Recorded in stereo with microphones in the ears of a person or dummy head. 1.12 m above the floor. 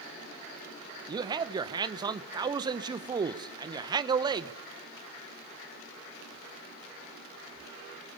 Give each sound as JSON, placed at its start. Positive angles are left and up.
{"t": 1.1, "sound": "a man speaking", "side_deg": -15, "distance_m": 0.9}